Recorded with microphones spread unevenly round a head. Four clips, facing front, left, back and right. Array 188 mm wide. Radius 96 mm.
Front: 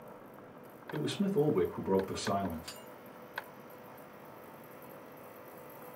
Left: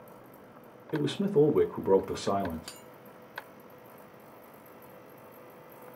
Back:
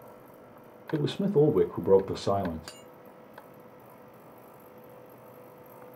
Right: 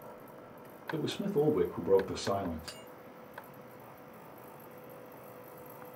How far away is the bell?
About 0.5 m.